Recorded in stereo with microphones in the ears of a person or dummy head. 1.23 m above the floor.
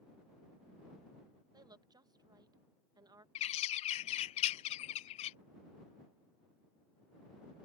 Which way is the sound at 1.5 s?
15° right (ahead or behind).